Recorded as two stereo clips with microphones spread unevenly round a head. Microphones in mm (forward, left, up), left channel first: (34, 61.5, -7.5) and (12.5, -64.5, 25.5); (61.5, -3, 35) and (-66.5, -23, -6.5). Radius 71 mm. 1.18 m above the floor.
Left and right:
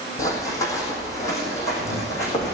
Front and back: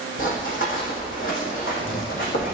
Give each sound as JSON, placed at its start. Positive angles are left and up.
{"t": 0.2, "sound": "running footsteps", "azimuth_deg": 10, "distance_m": 3.5}